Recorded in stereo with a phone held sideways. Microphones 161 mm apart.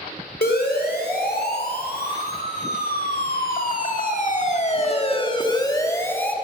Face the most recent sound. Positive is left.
turn(degrees=10)  # may be behind; listen again after turning